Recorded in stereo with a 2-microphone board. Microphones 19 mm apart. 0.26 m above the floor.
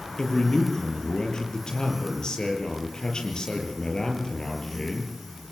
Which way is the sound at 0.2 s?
40° left (ahead or behind).